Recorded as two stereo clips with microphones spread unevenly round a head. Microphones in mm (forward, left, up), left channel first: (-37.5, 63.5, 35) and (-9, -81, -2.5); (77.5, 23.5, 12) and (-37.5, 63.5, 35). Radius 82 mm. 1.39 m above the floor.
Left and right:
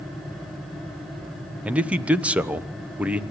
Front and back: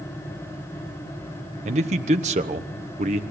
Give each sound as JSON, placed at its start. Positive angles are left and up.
{"t": 1.6, "sound": "a man speaking", "azimuth_deg": -155, "distance_m": 1.0}